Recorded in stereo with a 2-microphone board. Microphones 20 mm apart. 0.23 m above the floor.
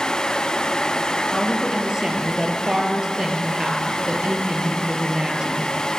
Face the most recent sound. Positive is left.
turn(degrees=-35)  # may be behind; listen again after turning